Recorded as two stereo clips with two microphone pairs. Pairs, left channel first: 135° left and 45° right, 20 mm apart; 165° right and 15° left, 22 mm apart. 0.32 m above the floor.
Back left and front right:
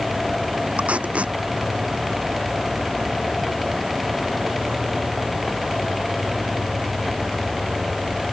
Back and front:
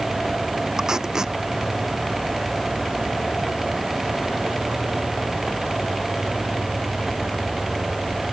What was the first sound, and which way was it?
Tape being pulled, 45° right.